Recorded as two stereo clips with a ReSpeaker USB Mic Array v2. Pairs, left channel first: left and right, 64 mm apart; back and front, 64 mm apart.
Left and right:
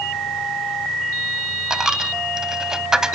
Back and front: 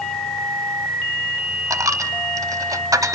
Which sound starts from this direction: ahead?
A dropped coin, at 1.7 s.